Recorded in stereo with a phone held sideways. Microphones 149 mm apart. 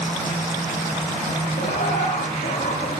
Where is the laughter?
75° left (ahead or behind), 3 m.